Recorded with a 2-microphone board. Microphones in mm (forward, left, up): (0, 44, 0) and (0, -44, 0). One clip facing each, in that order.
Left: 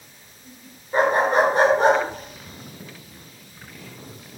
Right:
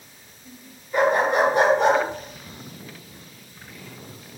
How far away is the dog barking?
About 7.5 m.